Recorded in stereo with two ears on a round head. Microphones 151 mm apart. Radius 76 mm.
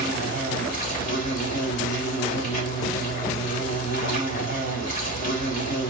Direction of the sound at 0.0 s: 50° left (ahead or behind).